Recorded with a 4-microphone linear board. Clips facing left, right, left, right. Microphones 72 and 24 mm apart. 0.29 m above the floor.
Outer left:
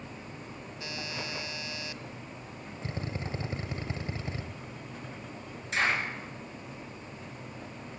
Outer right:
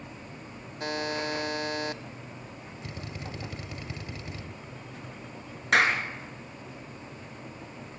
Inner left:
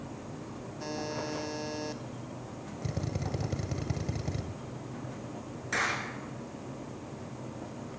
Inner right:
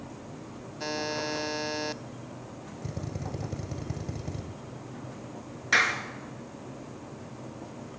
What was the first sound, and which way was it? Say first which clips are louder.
A buzzer: outer right 9 dB, inner right 5 dB; 50° right (ahead or behind).